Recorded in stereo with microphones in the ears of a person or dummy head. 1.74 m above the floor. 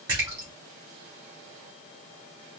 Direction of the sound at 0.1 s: 15° right (ahead or behind).